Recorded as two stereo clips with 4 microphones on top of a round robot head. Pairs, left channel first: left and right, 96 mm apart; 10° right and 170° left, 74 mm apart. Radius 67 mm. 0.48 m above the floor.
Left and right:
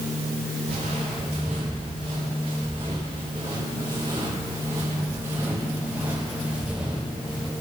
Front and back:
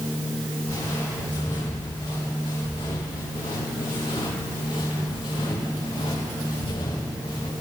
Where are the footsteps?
65° right, 5 m; by 7.5 s 5° right, 5 m.